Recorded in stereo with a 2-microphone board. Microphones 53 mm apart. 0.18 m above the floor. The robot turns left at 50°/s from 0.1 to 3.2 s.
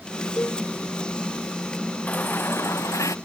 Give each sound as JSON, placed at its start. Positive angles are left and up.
{"t": 0.4, "sound": "a cowbell", "side_deg": 55}
{"t": 2.1, "sound": "a baby crying", "azimuth_deg": 150}